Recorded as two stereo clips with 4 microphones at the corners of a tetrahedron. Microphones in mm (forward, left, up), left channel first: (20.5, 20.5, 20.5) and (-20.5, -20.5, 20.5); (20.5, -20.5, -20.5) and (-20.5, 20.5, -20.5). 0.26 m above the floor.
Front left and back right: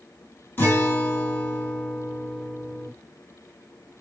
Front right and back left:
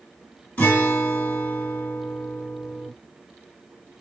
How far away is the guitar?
About 2.5 m.